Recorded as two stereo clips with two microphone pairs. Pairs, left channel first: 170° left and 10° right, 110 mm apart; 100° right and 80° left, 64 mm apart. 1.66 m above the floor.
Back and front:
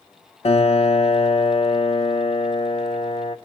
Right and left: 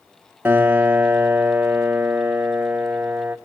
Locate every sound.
0.5 s a piano: 145° left, 1.3 m